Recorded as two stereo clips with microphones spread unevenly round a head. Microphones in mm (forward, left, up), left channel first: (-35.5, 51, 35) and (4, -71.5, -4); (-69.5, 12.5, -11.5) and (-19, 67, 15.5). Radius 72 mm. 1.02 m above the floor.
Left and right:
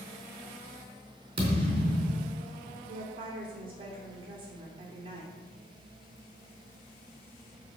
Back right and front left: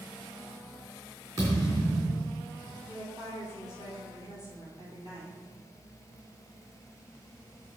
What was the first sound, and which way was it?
A thud, 15° right.